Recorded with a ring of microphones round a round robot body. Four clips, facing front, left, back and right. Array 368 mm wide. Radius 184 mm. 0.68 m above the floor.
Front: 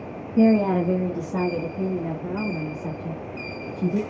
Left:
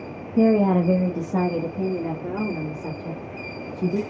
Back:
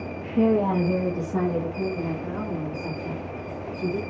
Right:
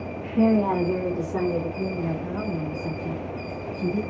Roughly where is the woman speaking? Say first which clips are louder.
Left 3 dB, front 3 dB; left.